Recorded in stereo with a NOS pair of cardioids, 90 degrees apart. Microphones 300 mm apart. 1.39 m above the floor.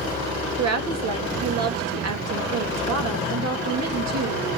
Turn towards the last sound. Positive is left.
turn(degrees=-60)